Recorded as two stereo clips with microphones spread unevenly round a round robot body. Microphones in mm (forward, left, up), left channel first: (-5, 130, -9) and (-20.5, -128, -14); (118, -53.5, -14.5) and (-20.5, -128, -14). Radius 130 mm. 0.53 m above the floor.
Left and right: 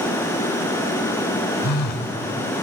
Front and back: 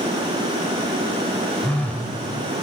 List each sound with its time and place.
1.6 s a phone buzzing: 110° left, 1.5 m